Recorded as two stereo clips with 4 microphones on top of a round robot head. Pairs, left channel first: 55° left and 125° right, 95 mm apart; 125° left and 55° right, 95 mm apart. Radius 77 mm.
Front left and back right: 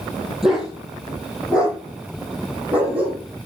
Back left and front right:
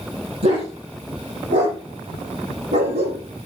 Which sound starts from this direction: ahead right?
A dog barking, at 0.4 s.